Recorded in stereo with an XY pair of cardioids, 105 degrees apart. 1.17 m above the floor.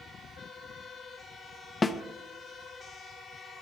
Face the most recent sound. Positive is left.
turn(degrees=25)